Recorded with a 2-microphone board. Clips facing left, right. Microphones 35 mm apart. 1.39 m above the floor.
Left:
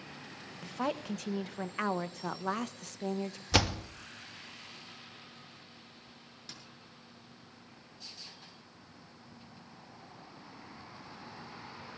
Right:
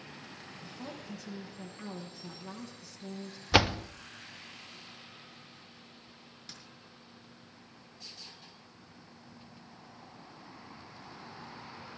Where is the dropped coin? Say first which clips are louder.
Left 1 dB; 5° right (ahead or behind), 6 m.